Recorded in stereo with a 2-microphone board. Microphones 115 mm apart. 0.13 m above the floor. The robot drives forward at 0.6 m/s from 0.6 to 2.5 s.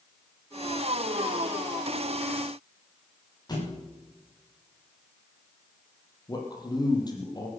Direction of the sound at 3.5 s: 35° left (ahead or behind).